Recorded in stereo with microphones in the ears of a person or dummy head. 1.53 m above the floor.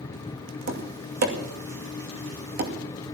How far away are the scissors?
I don't hear scissors.